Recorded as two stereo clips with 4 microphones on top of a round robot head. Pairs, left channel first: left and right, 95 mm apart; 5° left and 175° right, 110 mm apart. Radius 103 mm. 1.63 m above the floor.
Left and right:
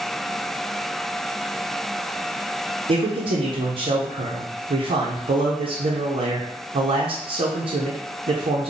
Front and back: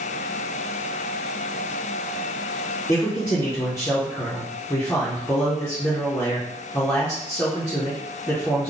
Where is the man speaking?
70° right, 0.6 m.